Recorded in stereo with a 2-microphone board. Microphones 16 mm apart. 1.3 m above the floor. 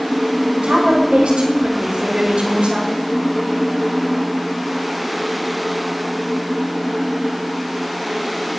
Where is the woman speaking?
85° right, 5.5 m; by 2.9 s 80° right, 6.5 m.